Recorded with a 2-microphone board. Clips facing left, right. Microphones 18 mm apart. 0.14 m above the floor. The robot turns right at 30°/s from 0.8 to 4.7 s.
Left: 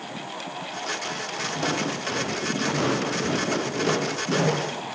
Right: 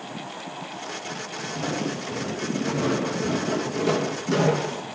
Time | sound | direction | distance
1.5 | footsteps | 70° left (ahead or behind) | 4 m